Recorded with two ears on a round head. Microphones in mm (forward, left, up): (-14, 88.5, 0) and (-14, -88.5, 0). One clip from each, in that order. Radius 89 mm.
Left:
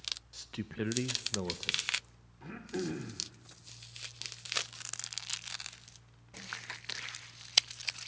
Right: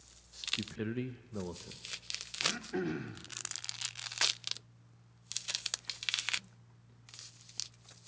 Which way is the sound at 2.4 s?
35° right (ahead or behind).